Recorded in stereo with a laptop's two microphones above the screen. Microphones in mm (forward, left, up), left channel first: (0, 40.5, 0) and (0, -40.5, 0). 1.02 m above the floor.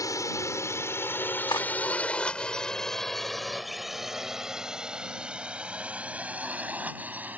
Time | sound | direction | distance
0.0 | a drone | 45° left (ahead or behind) | ?
1.5 | cutlery clinking | 70° left (ahead or behind) | ?